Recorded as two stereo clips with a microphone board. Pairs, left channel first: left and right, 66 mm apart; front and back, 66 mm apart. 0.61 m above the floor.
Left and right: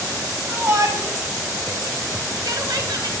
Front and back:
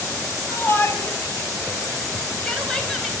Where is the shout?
50° right, 5.5 m; by 3.1 s 90° right, 4 m.